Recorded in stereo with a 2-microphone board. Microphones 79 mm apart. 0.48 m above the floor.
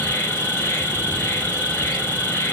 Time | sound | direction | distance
0.0 | an insect | 30° left (ahead or behind) | 0.9 m